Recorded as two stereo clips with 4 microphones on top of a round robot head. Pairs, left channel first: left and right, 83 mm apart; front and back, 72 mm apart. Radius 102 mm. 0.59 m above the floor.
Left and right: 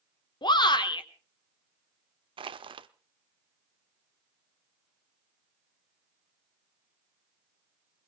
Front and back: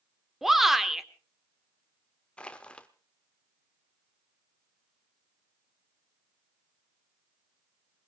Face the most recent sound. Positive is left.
turn(degrees=-75)